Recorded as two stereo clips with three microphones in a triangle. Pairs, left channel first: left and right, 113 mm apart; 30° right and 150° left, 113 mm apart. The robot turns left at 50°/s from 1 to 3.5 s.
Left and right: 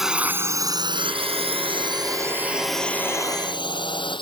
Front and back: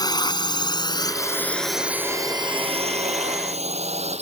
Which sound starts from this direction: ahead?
A drone, at 0.0 s.